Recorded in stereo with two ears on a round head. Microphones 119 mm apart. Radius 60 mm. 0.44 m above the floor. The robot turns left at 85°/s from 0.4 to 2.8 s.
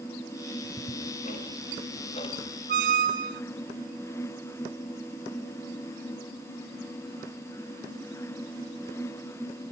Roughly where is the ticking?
Centre.